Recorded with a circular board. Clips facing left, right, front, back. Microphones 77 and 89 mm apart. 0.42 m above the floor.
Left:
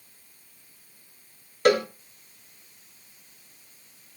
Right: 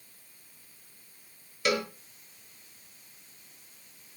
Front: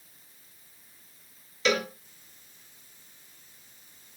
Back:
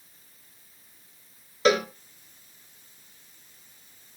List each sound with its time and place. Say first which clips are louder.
1.6 s a cowbell: left 8 dB, back 5 dB; 135° left, 2.5 m